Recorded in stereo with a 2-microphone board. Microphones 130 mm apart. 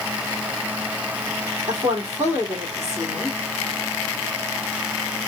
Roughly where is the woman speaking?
Right.